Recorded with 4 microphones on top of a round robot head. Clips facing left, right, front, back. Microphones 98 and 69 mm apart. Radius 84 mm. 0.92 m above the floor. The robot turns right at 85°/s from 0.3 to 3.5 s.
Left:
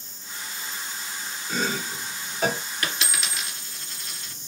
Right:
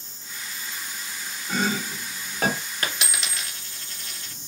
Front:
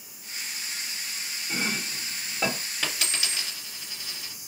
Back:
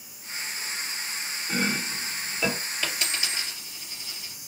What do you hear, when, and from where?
1.5 s chopping: 140° right, 1.4 m; by 2.6 s 45° right, 1.4 m
2.8 s a dropped coin: 35° right, 1.9 m; by 4.3 s 20° left, 1.9 m